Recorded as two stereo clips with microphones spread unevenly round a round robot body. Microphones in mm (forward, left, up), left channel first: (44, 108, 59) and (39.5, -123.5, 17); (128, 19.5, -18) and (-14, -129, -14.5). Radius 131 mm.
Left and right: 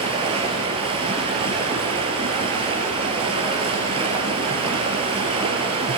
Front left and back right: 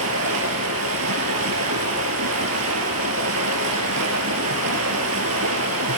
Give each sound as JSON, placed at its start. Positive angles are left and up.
{"t": 0.0, "sound": "running water", "azimuth_deg": -165, "distance_m": 2.5}